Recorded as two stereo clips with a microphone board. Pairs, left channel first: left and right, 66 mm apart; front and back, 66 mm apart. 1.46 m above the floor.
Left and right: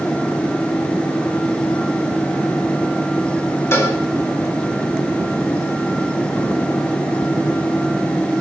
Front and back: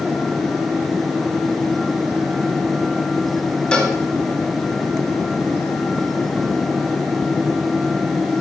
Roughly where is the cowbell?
Ahead left.